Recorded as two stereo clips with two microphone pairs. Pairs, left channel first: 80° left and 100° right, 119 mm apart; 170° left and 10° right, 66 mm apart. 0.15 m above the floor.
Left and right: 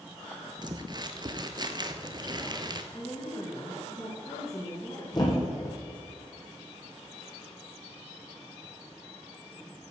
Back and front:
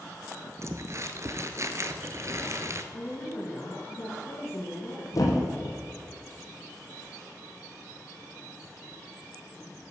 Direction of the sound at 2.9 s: 135° left.